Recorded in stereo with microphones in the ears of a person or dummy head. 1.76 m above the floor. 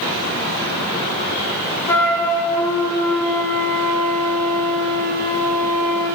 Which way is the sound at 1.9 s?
10° left (ahead or behind).